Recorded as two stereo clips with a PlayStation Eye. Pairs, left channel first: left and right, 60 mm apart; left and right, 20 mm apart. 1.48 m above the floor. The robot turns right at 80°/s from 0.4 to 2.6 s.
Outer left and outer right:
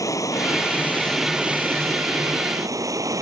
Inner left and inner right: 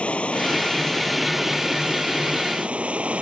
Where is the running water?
115° left; by 3.2 s 70° right.